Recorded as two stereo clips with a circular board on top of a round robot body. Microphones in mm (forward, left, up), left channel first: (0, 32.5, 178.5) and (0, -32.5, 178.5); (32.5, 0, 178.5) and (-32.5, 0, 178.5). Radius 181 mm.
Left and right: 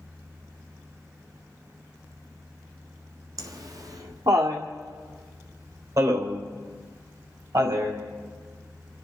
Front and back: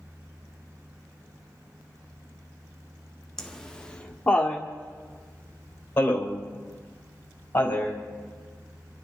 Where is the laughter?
85° right, 1.6 m; by 8.0 s 60° right, 4.5 m.